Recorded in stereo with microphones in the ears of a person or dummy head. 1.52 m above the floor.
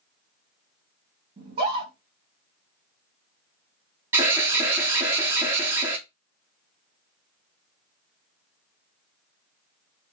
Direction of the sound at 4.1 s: 10° right (ahead or behind).